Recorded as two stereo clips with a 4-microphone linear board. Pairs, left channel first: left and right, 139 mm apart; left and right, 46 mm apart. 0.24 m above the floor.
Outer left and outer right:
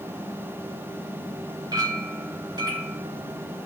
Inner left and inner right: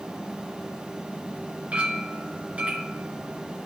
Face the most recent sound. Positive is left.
turn(degrees=-30)  # may be behind; listen again after turning